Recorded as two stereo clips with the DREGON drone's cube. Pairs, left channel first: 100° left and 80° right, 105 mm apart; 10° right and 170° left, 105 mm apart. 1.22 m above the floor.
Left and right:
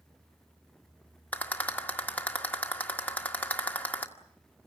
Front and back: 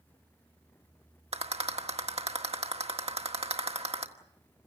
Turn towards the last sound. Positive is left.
turn(degrees=175)